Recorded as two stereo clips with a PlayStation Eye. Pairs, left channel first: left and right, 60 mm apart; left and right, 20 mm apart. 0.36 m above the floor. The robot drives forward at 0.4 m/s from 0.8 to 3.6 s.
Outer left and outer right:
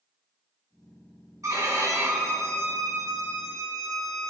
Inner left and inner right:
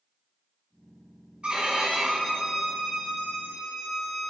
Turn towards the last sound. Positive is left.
turn(degrees=-60)  # may be behind; listen again after turning